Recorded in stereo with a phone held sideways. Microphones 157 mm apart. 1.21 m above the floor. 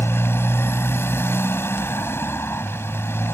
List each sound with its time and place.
0.0 s a motorcycle: 15° left (ahead or behind)